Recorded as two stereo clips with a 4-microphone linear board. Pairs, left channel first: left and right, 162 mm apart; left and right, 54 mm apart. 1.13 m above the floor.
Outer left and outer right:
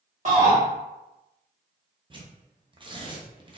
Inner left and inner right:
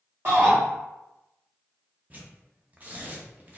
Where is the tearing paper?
35° right (ahead or behind), 0.6 m.